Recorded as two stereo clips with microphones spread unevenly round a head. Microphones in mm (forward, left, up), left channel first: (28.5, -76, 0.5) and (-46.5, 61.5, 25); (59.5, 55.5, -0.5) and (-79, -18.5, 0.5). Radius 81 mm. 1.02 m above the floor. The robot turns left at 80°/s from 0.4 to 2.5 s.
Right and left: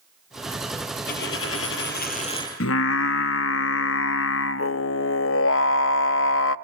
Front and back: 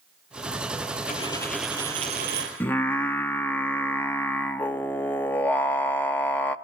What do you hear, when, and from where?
1.1 s a dropped coin: 20° right, 5.5 m; by 2.5 s 135° right, 5.5 m
2.6 s singing: 50° right, 0.9 m